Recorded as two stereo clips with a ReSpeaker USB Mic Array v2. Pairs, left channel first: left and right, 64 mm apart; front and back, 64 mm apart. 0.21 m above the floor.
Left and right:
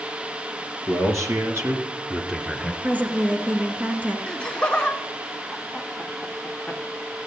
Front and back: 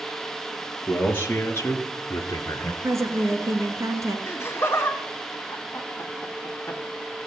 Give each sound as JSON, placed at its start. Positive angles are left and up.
{"t": 0.9, "sound": "a man speaking", "azimuth_deg": -60, "distance_m": 3.0}
{"t": 2.8, "sound": "a woman speaking", "azimuth_deg": -150, "distance_m": 2.5}
{"t": 4.3, "sound": "laughter", "azimuth_deg": 25, "distance_m": 1.4}